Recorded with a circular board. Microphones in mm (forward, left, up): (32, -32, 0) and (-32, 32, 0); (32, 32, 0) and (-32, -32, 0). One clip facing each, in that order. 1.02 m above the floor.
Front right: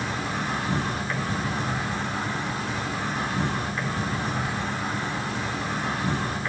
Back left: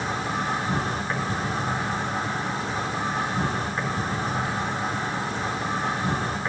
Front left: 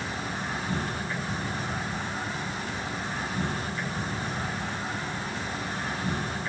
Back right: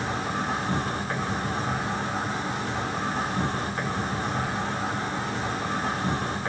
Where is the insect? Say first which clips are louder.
Back left 2 dB, back right 5 dB; 165° right, 1.8 m.